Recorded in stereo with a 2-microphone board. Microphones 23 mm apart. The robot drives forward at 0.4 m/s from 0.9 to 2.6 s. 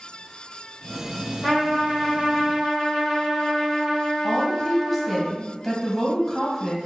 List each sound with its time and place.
1.4 s a trumpet: 10° left (ahead or behind), 1.7 m; by 5.2 s 5° left (ahead or behind), 2 m
4.2 s a woman speaking: 5° left (ahead or behind), 0.9 m